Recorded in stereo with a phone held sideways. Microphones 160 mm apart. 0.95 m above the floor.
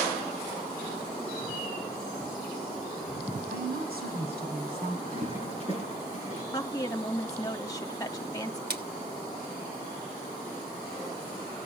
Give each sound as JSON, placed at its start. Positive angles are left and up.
{"t": 3.5, "sound": "a woman speaking", "side_deg": -85, "distance_m": 5.5}
{"t": 5.1, "sound": "a toilet flushing", "side_deg": -40, "distance_m": 5.5}
{"t": 6.5, "sound": "a woman speaking", "side_deg": 20, "distance_m": 1.8}
{"t": 8.7, "sound": "a splash", "side_deg": -80, "distance_m": 1.6}